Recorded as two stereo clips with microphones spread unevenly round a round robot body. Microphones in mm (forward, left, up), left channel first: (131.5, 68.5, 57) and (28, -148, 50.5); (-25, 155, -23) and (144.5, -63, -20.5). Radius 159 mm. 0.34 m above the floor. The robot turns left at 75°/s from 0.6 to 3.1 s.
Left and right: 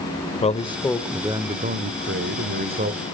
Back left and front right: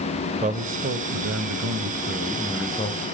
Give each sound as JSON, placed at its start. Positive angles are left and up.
{"t": 0.4, "sound": "a man speaking", "azimuth_deg": 5, "distance_m": 1.9}